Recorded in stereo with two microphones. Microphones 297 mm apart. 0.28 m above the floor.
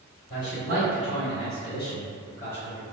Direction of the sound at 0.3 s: 35° left (ahead or behind).